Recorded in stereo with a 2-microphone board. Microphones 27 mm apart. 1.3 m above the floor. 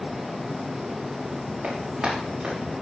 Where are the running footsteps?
40° right (ahead or behind), 5 m.